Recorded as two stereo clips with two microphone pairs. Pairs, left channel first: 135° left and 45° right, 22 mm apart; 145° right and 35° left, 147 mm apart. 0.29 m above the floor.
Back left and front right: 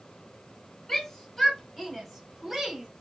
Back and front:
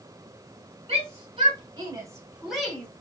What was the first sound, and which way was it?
A shout, 70° left.